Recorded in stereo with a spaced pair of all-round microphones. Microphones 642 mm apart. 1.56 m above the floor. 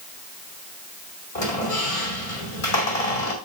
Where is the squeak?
65° left (ahead or behind), 2.5 m.